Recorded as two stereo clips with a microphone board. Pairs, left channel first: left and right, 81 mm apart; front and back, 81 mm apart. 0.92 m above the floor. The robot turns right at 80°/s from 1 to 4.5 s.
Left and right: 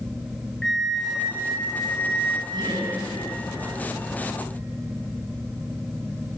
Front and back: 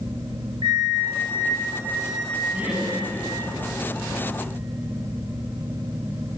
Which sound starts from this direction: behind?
A flute, at 0.6 s.